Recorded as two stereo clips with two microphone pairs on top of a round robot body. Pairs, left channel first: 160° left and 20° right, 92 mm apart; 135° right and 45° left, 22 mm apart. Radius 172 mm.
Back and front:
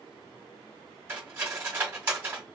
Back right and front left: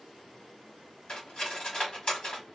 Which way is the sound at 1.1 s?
90° right.